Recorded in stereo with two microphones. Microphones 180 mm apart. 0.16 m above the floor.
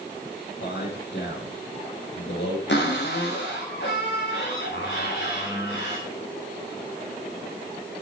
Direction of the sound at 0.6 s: 70° left (ahead or behind).